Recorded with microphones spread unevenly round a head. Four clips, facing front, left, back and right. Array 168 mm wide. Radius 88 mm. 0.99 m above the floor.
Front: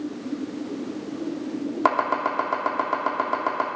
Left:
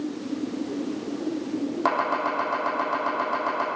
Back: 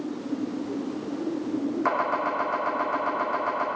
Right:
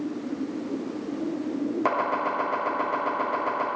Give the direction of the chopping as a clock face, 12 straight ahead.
12 o'clock.